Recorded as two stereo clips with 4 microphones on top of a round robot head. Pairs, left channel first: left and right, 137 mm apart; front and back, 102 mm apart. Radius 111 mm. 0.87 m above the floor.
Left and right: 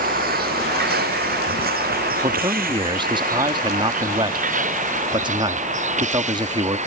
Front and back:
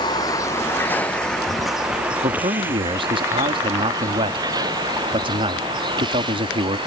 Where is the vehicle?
60° right; by 6.9 s 125° right.